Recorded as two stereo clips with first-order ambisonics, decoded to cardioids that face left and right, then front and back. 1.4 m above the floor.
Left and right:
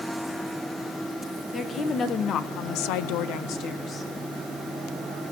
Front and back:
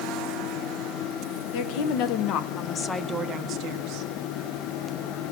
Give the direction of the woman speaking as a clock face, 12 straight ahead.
11 o'clock.